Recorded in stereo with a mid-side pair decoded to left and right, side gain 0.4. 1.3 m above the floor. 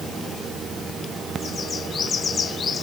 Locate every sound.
Only background noise.